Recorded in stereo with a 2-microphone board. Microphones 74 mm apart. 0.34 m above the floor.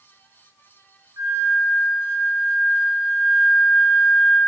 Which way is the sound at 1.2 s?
55° right (ahead or behind).